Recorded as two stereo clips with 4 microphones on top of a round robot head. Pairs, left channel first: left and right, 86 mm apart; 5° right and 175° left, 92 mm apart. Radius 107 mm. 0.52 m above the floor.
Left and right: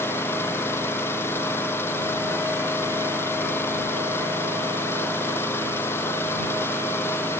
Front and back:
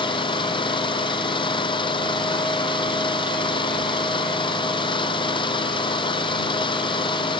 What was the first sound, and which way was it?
An engine running, 25° left.